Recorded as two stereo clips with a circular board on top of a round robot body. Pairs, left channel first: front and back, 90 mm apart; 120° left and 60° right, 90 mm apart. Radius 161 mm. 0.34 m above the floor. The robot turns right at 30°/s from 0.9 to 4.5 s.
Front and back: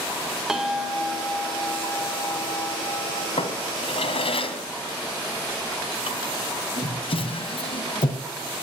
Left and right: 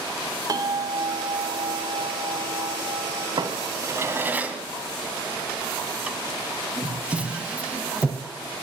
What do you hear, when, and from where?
0.5 s a bell: 95° right, 2.5 m; by 3.3 s 25° right, 2.5 m
3.4 s a drawer: 15° right, 2.5 m; by 8.2 s 20° left, 2.5 m